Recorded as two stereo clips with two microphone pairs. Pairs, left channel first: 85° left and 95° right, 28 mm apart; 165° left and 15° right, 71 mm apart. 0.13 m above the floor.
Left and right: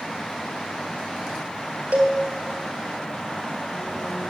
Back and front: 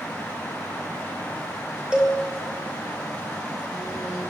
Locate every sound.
1.9 s a cowbell: 85° right, 1.5 m